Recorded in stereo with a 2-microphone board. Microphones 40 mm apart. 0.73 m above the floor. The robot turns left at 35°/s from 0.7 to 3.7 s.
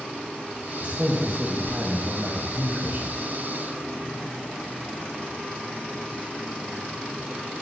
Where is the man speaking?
45° right, 1.1 m; by 3.2 s 130° right, 1.1 m.